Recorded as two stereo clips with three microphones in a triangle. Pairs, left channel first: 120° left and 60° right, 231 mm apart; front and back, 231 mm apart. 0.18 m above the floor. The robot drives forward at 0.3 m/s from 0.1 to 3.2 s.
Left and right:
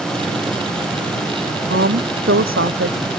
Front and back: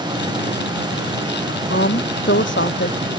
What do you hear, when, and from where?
1.7 s a woman speaking: 35° right